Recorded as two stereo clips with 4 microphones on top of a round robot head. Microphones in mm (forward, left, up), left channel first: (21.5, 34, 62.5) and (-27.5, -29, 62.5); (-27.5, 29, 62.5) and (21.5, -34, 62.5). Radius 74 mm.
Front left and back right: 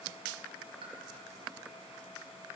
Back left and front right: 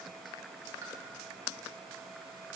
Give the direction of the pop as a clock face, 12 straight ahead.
3 o'clock.